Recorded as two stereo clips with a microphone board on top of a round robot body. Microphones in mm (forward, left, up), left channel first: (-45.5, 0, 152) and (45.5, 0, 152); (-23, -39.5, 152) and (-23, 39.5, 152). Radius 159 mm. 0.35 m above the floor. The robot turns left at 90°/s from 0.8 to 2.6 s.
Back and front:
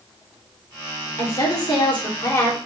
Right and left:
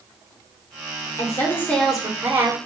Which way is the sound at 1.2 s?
115° right.